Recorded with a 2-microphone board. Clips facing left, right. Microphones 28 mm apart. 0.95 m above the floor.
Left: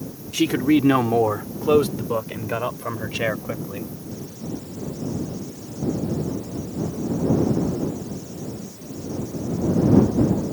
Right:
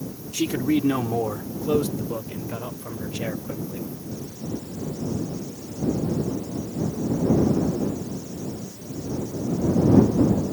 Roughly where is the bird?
No bird in this recording.